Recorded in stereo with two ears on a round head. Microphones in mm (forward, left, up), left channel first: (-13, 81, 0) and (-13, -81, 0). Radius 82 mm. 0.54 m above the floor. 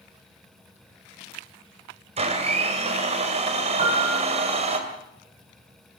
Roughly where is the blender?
Right.